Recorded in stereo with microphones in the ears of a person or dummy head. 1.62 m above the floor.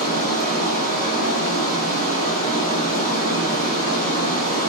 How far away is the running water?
About 1.5 m.